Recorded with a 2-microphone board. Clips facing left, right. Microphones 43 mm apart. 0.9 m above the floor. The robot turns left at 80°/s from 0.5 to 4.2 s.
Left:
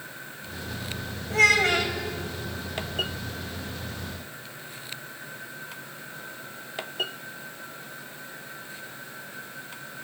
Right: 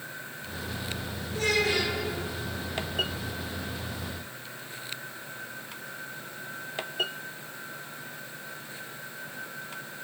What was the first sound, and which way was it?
A child speaking, 90° left.